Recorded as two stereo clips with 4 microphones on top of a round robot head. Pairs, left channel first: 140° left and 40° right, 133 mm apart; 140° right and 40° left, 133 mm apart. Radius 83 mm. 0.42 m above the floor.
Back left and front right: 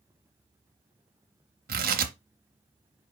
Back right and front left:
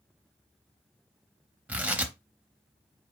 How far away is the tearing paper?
About 0.8 m.